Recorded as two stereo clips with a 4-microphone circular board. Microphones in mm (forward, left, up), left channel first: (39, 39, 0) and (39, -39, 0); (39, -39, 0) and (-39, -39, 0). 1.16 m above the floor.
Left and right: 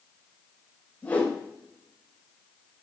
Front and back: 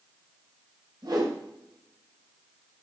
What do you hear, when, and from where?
1.0 s a whoosh: 160° left, 4.5 m